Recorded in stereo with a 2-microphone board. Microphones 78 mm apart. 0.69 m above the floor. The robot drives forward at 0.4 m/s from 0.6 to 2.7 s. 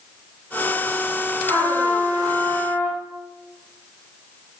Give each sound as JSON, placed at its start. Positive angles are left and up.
{"t": 1.5, "sound": "a trumpet", "side_deg": -40, "distance_m": 5.0}